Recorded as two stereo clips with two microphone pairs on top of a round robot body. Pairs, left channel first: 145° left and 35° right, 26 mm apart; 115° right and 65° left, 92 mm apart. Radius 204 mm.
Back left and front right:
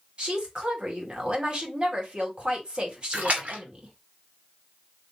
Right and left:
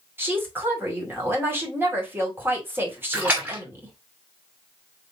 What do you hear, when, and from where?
0.2 s a woman speaking: straight ahead, 2.5 m
3.1 s a splash: 10° right, 2 m